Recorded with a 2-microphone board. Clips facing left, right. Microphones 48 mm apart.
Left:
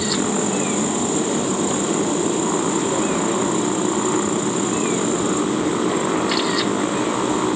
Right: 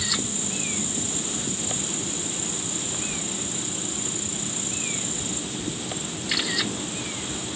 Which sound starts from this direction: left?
A motorcycle, at 0.0 s.